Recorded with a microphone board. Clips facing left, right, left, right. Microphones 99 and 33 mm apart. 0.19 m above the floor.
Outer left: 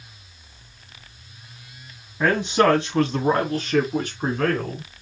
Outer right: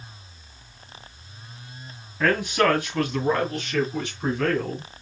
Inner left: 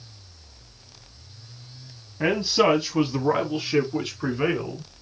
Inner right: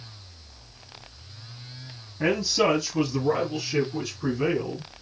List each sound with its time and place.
2.2 s a man speaking: 20° left (ahead or behind), 1.7 m; by 4.8 s 50° left (ahead or behind), 2.5 m